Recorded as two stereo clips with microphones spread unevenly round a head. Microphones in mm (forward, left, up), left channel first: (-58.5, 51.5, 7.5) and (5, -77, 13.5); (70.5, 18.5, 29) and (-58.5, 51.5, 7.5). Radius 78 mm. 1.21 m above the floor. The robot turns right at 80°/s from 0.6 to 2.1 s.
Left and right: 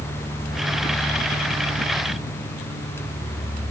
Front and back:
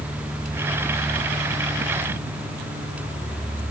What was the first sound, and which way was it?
Only background noise.